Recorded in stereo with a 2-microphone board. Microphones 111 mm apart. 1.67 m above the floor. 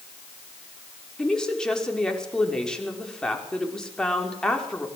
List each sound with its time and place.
1.2 s a woman speaking: 5° left (ahead or behind), 5.5 m